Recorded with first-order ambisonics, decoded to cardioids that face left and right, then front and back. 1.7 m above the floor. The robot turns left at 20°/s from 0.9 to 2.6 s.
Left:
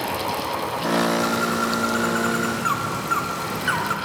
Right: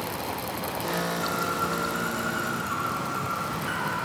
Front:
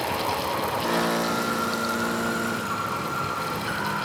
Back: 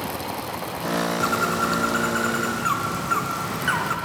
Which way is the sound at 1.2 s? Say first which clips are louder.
Left 5 dB, back 3 dB; 160° left.